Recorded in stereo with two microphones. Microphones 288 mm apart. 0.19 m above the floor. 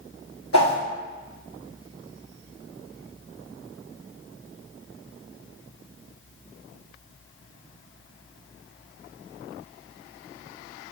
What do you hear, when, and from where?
0.5 s a whoosh: 75° left (ahead or behind), 0.9 m